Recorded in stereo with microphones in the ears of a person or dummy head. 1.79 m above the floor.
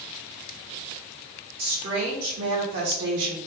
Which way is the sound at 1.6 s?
50° right (ahead or behind).